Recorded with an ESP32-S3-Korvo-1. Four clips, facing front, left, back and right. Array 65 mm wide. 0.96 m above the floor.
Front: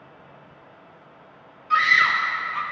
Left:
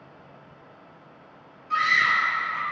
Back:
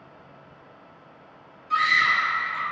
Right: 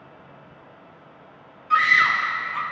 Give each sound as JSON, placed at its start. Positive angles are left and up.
{"t": 1.7, "sound": "a scream", "azimuth_deg": -45, "distance_m": 0.9}